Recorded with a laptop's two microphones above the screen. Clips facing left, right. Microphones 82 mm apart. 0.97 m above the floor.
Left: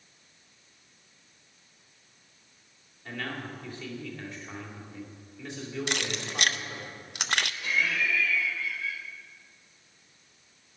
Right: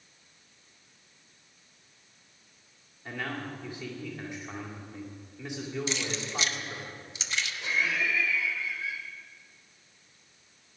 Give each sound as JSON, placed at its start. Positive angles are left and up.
{"t": 3.0, "sound": "a man speaking", "side_deg": -15, "distance_m": 2.0}
{"t": 5.9, "sound": "keys jangling", "side_deg": 60, "distance_m": 0.5}
{"t": 7.6, "sound": "laughter", "side_deg": -20, "distance_m": 3.5}